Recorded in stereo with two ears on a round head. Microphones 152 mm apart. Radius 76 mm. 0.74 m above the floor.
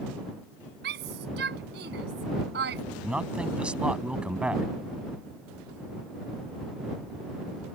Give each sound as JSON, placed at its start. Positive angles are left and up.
{"t": 0.8, "sound": "a shout", "side_deg": -70}
{"t": 3.0, "sound": "a man speaking", "side_deg": -5}